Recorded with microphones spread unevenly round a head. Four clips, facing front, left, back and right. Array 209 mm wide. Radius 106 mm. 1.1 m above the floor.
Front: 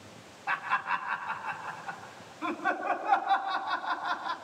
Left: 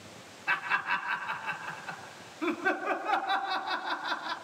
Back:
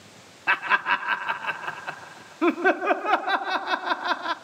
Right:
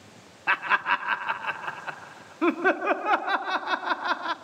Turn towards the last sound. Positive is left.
turn(degrees=-155)